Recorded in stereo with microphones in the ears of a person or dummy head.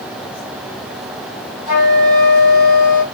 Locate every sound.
1.7 s a flute: 45° left (ahead or behind), 6.5 m